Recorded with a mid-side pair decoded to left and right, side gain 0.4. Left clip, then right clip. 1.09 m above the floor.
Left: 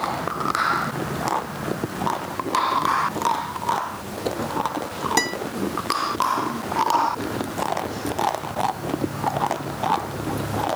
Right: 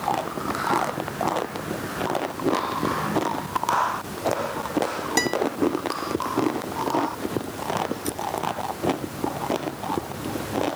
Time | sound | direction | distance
5.2 | a guitar | 10° left | ?